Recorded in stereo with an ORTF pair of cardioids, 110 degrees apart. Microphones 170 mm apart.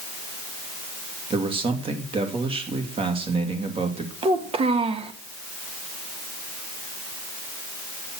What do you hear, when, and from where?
1.3 s a man speaking: 30° right, 2.5 m
4.2 s a child speaking: 35° right, 1.7 m